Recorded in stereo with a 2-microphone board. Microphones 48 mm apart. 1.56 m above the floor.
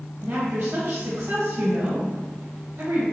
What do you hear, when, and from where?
0.2 s a woman speaking: 60° right (ahead or behind), 1.4 m